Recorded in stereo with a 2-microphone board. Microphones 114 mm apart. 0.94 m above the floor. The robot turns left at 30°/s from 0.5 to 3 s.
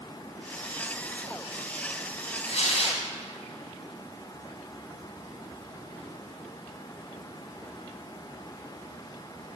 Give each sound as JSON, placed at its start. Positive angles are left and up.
{"t": 2.5, "sound": "tearing paper", "side_deg": 75, "distance_m": 2.0}